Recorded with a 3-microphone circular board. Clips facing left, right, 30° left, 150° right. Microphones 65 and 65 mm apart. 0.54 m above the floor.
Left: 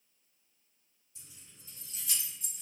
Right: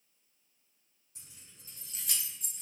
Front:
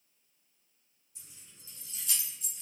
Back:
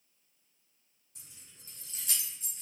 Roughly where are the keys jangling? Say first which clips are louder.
Even, even; behind right.